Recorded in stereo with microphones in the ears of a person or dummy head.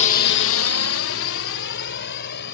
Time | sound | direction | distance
0.0 | a drone | 35° left (ahead or behind) | ?